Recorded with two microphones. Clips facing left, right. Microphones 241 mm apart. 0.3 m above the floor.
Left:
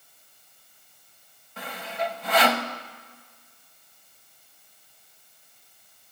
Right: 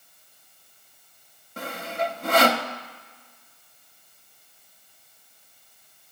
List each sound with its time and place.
1.6 s sawing: 50° right (ahead or behind), 0.6 m